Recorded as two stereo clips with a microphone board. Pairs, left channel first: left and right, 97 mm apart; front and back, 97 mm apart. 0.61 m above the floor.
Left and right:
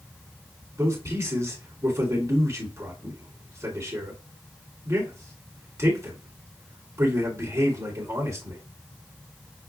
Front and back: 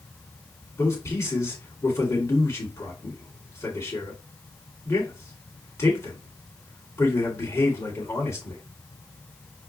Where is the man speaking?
45° right, 1.7 m.